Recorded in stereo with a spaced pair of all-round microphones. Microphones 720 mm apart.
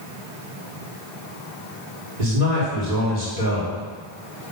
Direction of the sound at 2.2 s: 65° right (ahead or behind).